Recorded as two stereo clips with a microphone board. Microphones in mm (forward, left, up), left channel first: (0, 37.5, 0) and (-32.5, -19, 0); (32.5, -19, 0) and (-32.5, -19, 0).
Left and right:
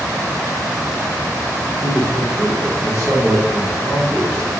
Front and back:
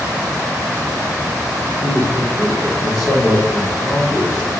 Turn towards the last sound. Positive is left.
turn(degrees=-20)